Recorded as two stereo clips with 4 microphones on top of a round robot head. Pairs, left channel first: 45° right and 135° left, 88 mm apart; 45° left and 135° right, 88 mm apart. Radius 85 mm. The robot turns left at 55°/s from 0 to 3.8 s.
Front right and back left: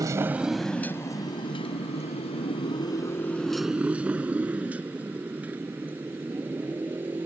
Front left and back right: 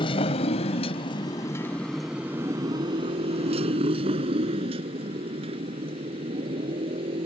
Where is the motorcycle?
80° left; by 7.3 s 155° right.